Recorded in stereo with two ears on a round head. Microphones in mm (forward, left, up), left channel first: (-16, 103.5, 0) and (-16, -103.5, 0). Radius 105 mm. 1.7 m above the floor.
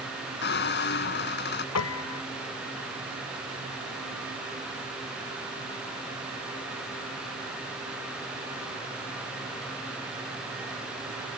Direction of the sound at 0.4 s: 50° left (ahead or behind).